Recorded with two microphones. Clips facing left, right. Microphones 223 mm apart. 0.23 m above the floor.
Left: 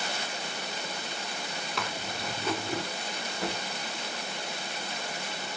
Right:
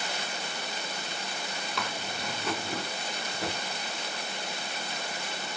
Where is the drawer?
Centre (ahead or behind), 8 m.